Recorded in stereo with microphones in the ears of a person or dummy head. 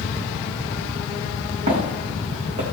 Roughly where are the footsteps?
Right.